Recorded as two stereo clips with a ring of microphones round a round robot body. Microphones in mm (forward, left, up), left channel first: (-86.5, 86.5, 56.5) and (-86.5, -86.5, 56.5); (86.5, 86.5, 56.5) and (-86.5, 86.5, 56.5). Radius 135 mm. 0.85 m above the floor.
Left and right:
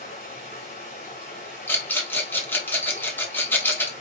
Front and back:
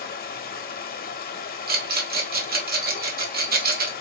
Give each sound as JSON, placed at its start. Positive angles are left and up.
{"t": 0.0, "sound": "running water", "azimuth_deg": 25, "distance_m": 0.7}
{"t": 1.7, "sound": "a rattle", "azimuth_deg": 165, "distance_m": 1.4}